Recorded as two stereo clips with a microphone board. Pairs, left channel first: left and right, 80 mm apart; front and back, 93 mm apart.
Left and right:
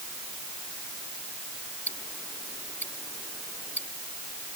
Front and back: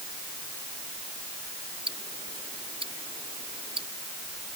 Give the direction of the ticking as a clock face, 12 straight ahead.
7 o'clock.